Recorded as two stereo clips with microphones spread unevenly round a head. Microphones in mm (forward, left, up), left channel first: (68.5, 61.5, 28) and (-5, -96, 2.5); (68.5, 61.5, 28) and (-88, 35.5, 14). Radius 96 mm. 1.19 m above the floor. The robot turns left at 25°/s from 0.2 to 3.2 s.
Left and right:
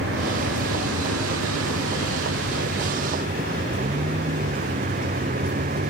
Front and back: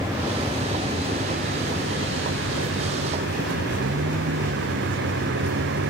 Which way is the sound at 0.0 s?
90° right.